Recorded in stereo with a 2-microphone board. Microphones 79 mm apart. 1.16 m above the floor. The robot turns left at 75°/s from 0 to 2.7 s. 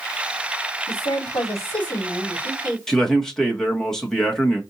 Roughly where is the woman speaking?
Left.